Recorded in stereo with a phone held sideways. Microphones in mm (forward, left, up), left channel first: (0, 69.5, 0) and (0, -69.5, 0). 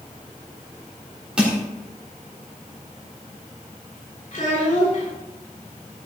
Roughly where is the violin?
I don't hear a violin.